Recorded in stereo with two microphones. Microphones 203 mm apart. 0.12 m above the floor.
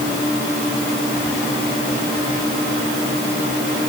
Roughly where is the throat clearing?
No throat clearing in this recording.